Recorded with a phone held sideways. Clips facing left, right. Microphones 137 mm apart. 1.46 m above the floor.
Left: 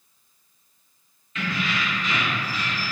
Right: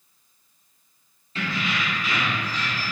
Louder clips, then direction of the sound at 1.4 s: Even; 35° right (ahead or behind).